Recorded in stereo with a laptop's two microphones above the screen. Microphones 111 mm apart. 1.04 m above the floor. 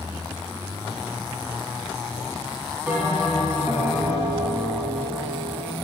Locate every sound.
2.9 s a bell: 15° right (ahead or behind), 4.5 m